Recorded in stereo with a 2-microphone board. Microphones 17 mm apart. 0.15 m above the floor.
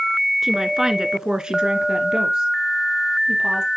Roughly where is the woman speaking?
Right.